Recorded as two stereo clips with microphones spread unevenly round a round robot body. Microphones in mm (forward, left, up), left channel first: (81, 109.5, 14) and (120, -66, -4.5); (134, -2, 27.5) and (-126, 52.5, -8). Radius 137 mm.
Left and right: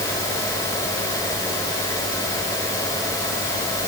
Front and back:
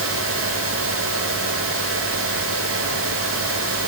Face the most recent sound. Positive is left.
No sound to turn to.